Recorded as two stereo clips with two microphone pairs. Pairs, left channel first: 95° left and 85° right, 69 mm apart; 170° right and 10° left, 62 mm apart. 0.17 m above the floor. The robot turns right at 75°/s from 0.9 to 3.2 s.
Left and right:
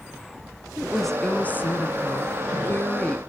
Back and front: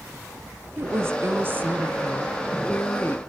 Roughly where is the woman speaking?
Ahead.